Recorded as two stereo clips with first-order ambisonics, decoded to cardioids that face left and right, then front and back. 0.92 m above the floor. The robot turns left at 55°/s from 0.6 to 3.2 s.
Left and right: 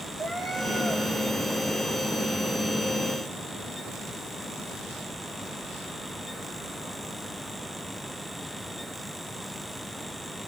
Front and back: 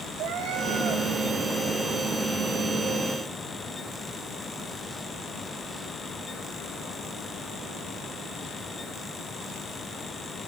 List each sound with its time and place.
0.2 s a cat meowing: 170° right, 1.1 m; by 1.1 s 165° left, 1.1 m